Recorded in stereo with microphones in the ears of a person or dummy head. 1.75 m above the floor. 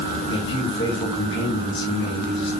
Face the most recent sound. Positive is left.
turn(degrees=25)  # may be behind; listen again after turning